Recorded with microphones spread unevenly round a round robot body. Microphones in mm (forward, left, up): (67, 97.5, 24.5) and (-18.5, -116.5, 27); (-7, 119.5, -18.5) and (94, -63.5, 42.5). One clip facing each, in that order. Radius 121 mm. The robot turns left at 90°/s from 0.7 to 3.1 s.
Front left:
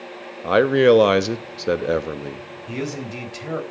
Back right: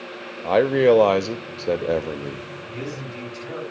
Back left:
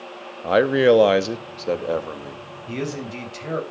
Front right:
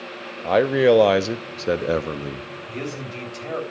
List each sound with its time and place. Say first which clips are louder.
0.4 s a man speaking: front left 2 dB, back left 1 dB; 120° left, 0.6 m; by 2.5 s 40° right, 0.6 m
2.7 s a man speaking: front left 6 dB, back left 4 dB; 95° left, 3.5 m; by 3.6 s 60° left, 3.5 m